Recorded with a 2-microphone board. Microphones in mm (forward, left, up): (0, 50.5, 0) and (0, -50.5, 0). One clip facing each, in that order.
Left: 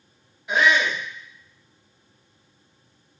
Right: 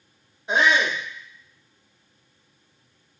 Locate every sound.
0.5 s a shout: 30° right (ahead or behind), 1.0 m